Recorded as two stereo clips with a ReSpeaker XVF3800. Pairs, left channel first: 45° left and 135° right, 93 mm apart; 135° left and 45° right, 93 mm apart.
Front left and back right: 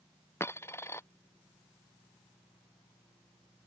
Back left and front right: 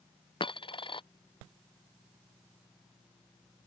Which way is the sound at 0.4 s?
105° left.